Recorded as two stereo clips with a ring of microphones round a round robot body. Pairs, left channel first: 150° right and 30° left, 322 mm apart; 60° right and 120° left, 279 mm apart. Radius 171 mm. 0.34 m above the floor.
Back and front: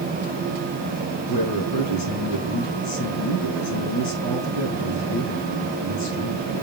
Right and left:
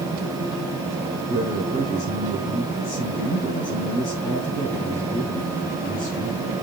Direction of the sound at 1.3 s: 130° right.